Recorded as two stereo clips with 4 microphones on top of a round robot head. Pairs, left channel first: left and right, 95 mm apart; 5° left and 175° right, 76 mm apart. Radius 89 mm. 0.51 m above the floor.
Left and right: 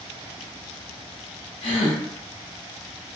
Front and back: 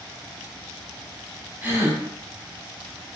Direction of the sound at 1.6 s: 120° left.